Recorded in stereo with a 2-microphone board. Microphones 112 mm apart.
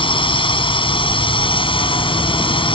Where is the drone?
50° left (ahead or behind).